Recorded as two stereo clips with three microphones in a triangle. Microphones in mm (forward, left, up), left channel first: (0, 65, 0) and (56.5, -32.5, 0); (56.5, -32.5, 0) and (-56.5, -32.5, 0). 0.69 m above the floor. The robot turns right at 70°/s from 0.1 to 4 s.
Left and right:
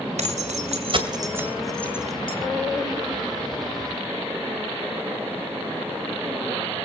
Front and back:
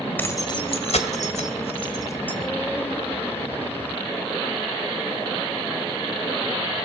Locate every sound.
0.2 s keys jangling: 75° right, 1.8 m; by 2.4 s 80° left, 1.8 m